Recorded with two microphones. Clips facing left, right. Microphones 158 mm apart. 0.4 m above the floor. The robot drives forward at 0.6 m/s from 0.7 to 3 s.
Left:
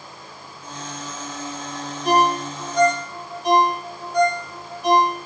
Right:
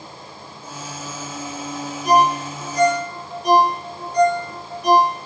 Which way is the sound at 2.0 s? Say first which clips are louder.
Right 2 dB; 5° left (ahead or behind).